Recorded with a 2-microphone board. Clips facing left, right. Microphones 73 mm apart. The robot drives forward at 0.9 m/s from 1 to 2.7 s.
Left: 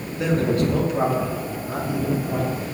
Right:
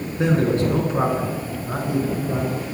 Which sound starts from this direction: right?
A man speaking, at 0.2 s.